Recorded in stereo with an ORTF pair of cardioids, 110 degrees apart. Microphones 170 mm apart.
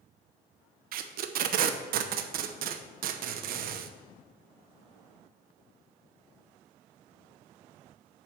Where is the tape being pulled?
60° right, 0.7 m.